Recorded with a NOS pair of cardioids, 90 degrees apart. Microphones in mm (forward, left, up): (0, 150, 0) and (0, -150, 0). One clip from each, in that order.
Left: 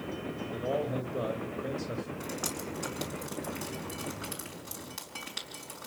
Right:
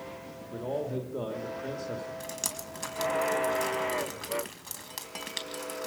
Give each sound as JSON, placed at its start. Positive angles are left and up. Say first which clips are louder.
{"t": 0.5, "sound": "a man speaking", "louder": "left 1 dB", "azimuth_deg": 0, "distance_m": 2.0}
{"t": 2.2, "sound": "dripping", "louder": "even", "azimuth_deg": -45, "distance_m": 4.5}